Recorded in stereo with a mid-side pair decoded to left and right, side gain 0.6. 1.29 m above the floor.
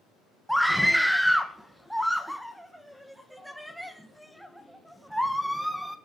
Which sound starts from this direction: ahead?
A scream, at 0.5 s.